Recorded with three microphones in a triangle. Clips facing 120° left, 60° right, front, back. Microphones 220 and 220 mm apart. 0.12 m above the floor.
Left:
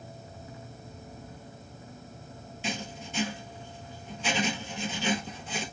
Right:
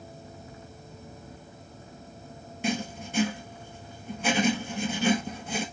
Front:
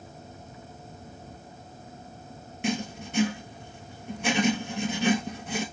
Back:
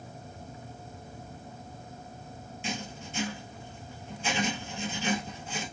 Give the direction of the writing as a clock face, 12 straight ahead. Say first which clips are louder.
Right 7 dB, front 8 dB; 1 o'clock.